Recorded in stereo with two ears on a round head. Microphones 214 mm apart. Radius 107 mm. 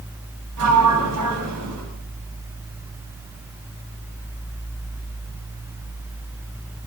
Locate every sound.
0.6 s a sliding door: 85° right, 8.5 m